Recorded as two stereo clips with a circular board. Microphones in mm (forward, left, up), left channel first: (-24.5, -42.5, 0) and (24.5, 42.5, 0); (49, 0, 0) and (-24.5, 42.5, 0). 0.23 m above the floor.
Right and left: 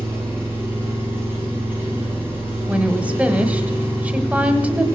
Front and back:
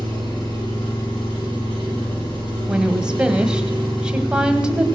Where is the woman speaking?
100° left, 1.1 m.